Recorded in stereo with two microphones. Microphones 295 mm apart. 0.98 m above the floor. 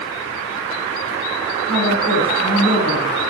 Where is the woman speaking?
55° left (ahead or behind), 3.5 m.